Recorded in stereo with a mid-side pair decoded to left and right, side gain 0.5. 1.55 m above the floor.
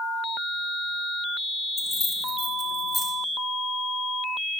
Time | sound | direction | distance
1.8 | keys jangling | 40° left | 1.9 m